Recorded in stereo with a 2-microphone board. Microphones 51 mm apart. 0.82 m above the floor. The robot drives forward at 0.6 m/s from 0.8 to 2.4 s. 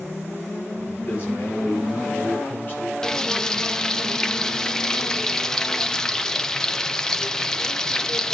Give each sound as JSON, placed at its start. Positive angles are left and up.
{"t": 1.0, "sound": "a man speaking", "side_deg": 45, "distance_m": 9.5}
{"t": 3.0, "sound": "frying", "side_deg": 10, "distance_m": 0.6}